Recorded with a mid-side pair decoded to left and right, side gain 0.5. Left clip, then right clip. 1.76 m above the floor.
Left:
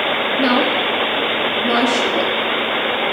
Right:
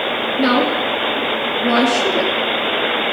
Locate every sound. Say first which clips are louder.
0.4 s a woman speaking: right 1 dB; 30° right, 2.5 m